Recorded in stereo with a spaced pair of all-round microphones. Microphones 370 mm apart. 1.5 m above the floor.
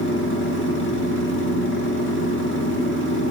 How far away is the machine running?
About 1.4 m.